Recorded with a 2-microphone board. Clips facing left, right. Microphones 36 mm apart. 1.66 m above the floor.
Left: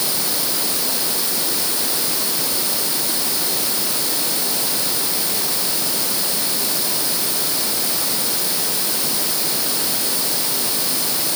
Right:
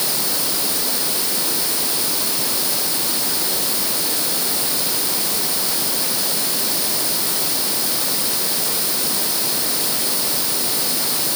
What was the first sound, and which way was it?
Only background noise.